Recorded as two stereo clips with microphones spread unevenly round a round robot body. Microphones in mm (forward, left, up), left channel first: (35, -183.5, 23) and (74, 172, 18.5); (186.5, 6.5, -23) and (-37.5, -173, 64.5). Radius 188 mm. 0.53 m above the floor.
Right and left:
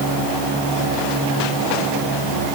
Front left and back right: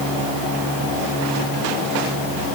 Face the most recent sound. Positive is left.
No sound to turn to.